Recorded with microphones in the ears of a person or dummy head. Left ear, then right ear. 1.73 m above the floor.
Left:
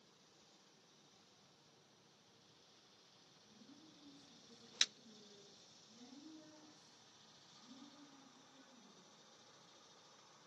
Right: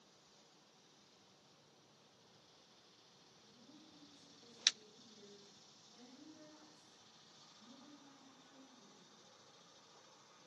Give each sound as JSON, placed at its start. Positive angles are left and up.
{"t": 3.5, "sound": "a woman speaking", "side_deg": -25, "distance_m": 10.0}